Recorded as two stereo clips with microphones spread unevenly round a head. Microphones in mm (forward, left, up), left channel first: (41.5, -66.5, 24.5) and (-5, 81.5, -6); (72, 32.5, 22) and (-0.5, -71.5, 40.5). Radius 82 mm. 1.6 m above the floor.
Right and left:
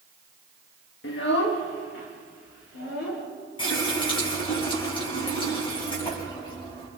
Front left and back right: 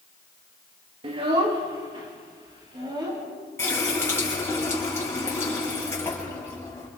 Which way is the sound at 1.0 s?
80° right.